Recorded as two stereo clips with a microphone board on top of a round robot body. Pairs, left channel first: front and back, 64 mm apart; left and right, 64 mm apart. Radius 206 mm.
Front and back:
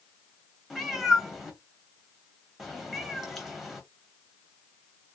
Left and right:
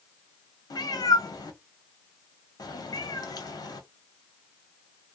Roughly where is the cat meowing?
Left.